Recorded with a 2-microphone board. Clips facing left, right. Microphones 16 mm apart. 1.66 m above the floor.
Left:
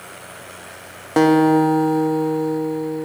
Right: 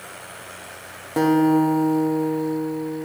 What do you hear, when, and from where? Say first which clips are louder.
1.2 s a guitar: left 4 dB; 35° left (ahead or behind), 0.6 m